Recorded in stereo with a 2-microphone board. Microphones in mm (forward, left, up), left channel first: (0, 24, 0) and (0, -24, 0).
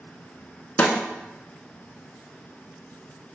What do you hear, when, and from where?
0.8 s a snare drum: 30° left (ahead or behind), 0.6 m